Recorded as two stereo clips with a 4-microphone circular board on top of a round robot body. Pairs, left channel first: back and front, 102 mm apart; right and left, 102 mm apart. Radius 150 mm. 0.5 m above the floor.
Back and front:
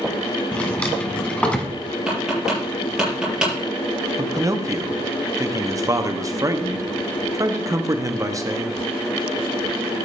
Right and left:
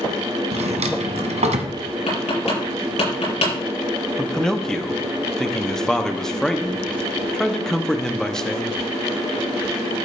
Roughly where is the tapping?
Right.